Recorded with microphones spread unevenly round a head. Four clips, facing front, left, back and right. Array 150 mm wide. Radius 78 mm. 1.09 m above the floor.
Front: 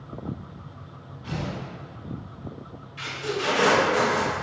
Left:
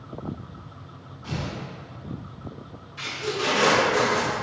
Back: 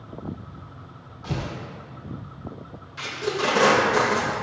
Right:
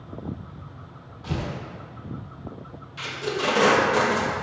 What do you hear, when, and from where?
1.2 s tearing paper: 140° right, 1.0 m
3.0 s tape being pulled: 145° right, 1.2 m